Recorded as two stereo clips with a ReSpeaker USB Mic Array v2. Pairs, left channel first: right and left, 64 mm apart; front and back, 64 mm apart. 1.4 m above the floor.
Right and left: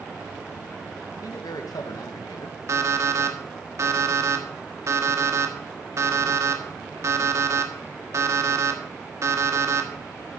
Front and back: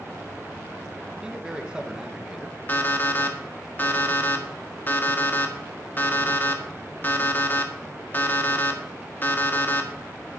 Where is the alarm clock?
60° left, 1.5 m.